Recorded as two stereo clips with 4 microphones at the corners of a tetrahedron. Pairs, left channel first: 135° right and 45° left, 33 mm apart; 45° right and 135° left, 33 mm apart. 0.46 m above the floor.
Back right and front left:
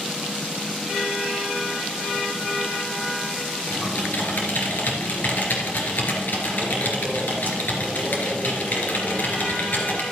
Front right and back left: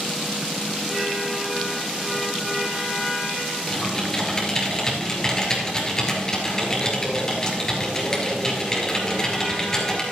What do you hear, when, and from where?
3.7 s typing on a keyboard: 115° right, 2.5 m